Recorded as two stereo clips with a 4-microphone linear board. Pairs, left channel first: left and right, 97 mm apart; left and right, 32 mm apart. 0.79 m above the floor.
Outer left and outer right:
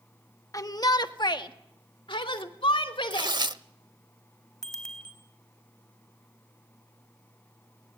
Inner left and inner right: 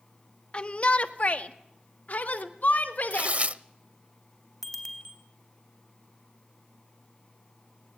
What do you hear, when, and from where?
0.5 s a shout: 35° left (ahead or behind), 1.1 m; by 3.4 s 65° left (ahead or behind), 3 m
3.1 s tearing paper: 50° right (ahead or behind), 0.7 m
4.6 s a bicycle bell: 5° left (ahead or behind), 3.5 m